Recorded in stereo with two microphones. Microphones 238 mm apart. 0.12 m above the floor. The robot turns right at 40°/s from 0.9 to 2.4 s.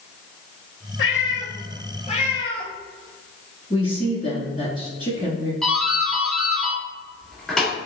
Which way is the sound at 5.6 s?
Centre (ahead or behind).